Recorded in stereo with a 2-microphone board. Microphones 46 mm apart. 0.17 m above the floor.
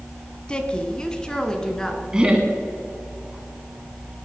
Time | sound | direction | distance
0.5 | a woman speaking | 20° left (ahead or behind) | 1.2 m
2.1 | laughter | 15° right (ahead or behind) | 1.4 m